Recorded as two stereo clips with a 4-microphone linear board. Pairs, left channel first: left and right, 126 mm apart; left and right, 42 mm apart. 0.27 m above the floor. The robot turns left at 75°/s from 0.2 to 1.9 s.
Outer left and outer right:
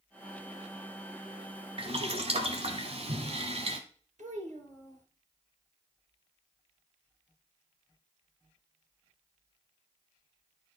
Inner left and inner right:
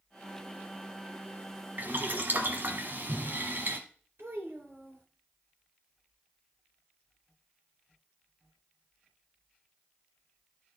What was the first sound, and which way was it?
Boiling, 45° right (ahead or behind).